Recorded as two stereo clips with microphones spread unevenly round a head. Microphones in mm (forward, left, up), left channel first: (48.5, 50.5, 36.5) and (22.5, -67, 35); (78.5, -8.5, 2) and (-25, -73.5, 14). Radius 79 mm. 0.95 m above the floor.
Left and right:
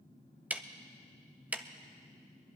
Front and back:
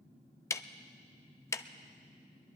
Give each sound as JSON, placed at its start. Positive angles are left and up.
{"t": 0.5, "sound": "ticking", "azimuth_deg": -30, "distance_m": 0.5}